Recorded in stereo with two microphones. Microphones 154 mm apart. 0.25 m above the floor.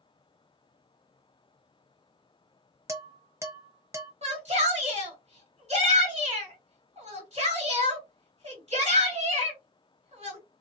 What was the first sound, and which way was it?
Dishes clattering, 20° right (ahead or behind).